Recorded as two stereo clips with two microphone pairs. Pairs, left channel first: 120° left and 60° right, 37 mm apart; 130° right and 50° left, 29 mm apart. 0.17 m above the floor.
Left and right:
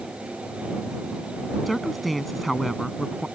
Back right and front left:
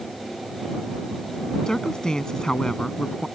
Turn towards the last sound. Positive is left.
turn(degrees=-155)